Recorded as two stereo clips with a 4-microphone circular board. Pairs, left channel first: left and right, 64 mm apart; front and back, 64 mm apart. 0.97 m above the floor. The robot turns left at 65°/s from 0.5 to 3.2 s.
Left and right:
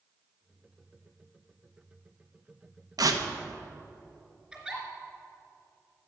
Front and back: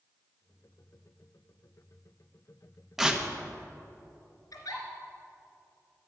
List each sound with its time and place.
3.0 s tearing paper: 95° right, 0.9 m; by 3.2 s 110° right, 0.9 m
4.5 s a giggle: 20° right, 3 m